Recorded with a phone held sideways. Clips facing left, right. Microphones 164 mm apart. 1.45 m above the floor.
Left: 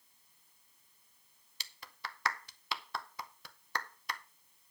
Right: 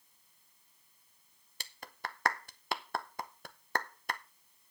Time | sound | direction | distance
1.6 | a clap | 55° right (ahead or behind) | 0.7 m